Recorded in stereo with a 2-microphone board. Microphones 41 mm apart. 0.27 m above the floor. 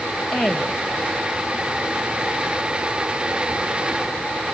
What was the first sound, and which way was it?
A woman speaking, 10° left (ahead or behind).